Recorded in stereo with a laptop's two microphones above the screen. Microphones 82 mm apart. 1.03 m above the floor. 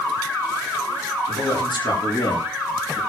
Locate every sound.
1.3 s a man speaking: 80° left, 9 m; by 3.0 s 85° left, 7.5 m